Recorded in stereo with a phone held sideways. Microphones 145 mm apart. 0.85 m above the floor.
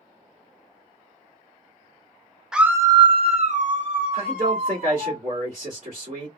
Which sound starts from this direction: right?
A man speaking, at 4.1 s.